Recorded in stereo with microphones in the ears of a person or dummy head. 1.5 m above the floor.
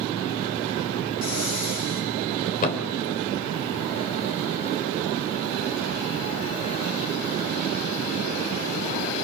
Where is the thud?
45° left (ahead or behind), 2.5 m.